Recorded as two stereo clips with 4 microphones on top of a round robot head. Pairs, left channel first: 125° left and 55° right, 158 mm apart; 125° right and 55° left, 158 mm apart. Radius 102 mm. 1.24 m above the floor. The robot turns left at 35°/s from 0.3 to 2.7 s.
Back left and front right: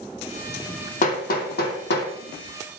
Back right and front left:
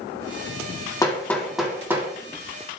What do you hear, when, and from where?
1.0 s hammering: 165° left, 2.5 m; by 2.1 s 130° left, 2.5 m